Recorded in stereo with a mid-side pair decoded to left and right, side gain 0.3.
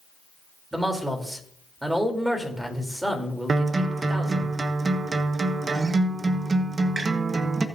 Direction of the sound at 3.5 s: 50° right.